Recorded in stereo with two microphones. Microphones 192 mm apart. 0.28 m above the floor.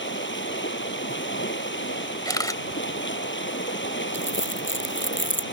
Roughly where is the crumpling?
Left.